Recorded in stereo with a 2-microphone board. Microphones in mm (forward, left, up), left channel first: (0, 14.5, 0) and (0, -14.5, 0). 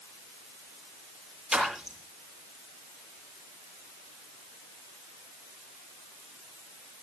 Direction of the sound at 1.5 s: 15° right (ahead or behind).